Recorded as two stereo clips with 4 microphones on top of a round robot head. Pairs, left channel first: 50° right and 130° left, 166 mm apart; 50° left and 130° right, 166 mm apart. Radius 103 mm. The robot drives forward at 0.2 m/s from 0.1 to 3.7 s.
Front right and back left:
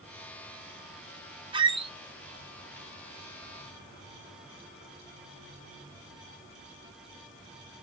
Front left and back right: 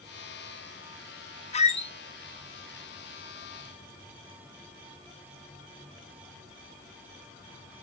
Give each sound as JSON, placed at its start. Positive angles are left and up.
{"t": 1.5, "sound": "a squeak", "azimuth_deg": 80, "distance_m": 0.8}